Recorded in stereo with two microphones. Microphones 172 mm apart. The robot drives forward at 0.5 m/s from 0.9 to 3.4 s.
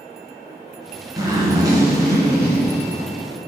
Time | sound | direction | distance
1.2 | a zipper | 20° right (ahead or behind) | 2.5 m